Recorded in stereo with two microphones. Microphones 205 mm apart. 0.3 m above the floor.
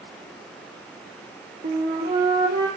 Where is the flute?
45° right (ahead or behind), 4 m.